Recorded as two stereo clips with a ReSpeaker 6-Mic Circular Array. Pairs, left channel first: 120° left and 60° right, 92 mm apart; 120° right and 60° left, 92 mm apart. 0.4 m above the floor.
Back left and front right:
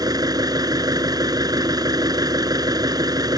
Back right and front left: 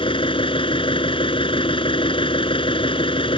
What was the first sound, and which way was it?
An engine running, 105° right.